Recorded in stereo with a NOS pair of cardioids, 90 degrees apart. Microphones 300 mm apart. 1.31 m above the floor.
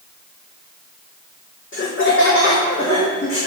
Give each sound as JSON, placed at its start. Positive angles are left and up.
{"t": 1.7, "sound": "laughter", "azimuth_deg": 40, "distance_m": 1.6}